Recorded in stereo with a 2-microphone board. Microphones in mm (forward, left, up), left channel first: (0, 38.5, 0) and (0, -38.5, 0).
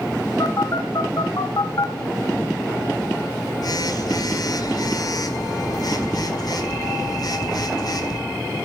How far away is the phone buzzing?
About 1.8 m.